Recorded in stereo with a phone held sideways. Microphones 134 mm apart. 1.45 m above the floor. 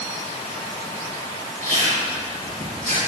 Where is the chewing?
80° right, 6 m.